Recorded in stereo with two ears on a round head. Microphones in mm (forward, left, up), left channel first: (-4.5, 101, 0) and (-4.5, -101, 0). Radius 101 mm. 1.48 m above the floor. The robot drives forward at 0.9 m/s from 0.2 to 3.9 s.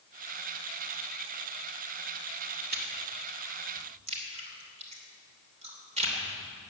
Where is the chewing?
45° right (ahead or behind), 2.0 m; by 6.1 s 30° right (ahead or behind), 3 m.